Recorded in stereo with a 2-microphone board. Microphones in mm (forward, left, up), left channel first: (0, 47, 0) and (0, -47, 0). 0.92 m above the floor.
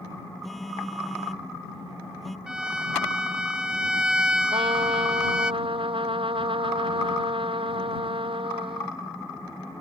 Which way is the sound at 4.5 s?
80° right.